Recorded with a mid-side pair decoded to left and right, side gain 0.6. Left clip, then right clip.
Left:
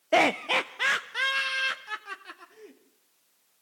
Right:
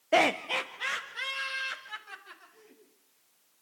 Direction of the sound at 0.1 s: 10° left.